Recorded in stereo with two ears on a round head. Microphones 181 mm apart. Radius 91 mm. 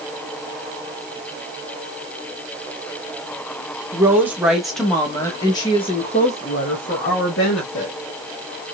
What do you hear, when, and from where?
3.9 s a woman speaking: 15° right (ahead or behind), 1.2 m; by 8.0 s 55° left (ahead or behind), 1.7 m